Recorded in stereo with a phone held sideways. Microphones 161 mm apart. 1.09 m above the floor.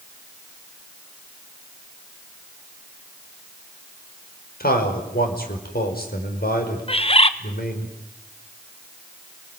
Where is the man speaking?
70° left (ahead or behind), 4.5 m.